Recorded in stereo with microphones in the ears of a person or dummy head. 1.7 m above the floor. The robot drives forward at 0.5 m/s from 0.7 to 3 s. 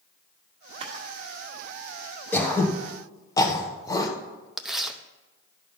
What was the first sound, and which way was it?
A camera shutter, 35° right (ahead or behind).